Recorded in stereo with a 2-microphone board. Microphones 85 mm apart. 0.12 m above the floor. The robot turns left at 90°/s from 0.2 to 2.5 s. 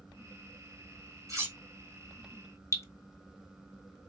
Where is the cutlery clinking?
40° right (ahead or behind), 1.4 m; by 1.6 s 25° right (ahead or behind), 1.4 m.